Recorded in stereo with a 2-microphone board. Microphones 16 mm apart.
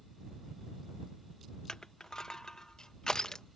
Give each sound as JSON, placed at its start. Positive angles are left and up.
{"t": 1.7, "sound": "crushing", "side_deg": 40}